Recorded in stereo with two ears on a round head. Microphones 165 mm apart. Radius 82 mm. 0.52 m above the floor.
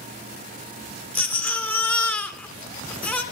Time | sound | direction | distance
1.1 | a baby crying | 10° left (ahead or behind) | 1.8 m